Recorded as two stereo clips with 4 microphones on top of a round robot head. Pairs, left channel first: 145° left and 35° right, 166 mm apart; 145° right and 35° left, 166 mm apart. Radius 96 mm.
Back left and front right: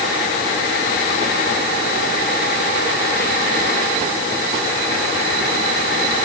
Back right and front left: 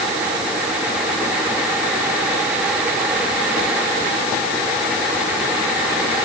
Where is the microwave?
I don't hear a microwave.